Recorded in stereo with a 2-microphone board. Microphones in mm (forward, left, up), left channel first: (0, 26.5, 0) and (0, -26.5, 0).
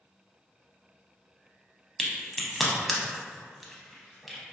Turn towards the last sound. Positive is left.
turn(degrees=0)  # may be behind; listen again after turning